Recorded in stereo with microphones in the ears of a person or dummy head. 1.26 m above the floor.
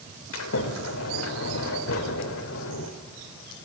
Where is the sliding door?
80° left, 3 m.